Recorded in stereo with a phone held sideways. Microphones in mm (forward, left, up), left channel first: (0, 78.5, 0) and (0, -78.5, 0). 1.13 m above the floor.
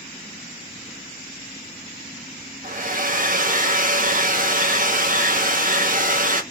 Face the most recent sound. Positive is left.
turn(degrees=-55)  # may be behind; listen again after turning